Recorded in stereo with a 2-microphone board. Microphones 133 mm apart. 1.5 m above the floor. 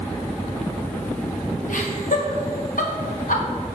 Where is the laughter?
80° left, 2 m.